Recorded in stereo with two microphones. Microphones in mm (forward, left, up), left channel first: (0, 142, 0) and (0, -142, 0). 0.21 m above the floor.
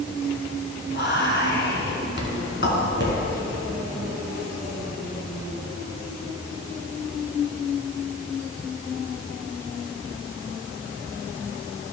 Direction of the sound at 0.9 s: 40° left (ahead or behind).